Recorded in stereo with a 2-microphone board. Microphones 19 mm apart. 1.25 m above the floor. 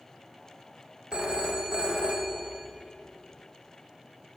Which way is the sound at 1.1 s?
45° right (ahead or behind).